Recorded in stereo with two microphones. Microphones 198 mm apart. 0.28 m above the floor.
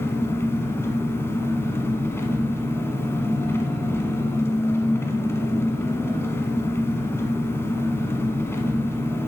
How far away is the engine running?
About 1.0 m.